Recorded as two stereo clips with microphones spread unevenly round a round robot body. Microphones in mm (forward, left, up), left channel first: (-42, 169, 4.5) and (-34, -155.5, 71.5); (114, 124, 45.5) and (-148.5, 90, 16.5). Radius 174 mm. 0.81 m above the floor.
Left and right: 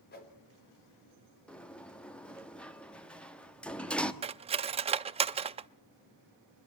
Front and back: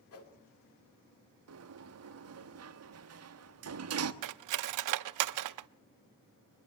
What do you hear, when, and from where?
0.1 s a whoosh: 35° left, 3 m
1.5 s a sliding door: 175° left, 1.1 m
4.2 s cutlery clinking: 160° right, 0.5 m